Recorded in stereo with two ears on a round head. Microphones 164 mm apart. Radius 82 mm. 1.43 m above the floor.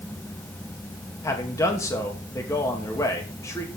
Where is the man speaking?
15° left (ahead or behind), 2.5 m.